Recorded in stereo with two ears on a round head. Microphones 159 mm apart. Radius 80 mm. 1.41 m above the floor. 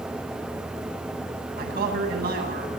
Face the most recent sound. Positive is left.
turn(degrees=-55)  # may be behind; listen again after turning